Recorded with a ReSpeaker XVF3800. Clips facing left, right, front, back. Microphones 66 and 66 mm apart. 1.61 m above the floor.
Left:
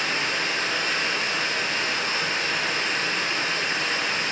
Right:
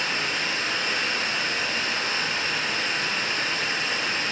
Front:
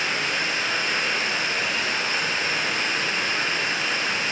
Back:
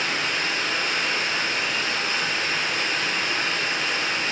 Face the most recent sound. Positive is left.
turn(degrees=80)